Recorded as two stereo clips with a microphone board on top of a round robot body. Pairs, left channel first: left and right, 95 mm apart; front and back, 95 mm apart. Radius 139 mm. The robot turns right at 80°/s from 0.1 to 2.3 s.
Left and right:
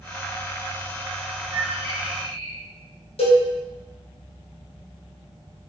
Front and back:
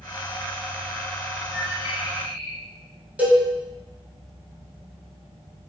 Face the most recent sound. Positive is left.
turn(degrees=105)